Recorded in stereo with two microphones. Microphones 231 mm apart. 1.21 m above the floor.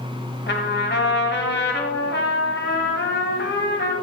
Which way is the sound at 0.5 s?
50° left (ahead or behind).